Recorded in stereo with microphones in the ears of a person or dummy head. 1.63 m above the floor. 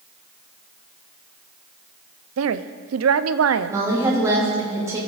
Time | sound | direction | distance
2.4 | a woman speaking | 85° right | 0.7 m
3.7 | a woman speaking | 20° right (ahead or behind) | 3.5 m